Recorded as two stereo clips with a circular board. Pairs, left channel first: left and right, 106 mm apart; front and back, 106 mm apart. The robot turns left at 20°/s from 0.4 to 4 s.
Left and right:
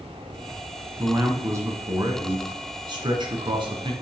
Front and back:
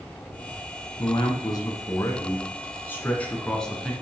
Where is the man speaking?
30° right, 1.8 m; by 3.9 s 85° right, 1.8 m.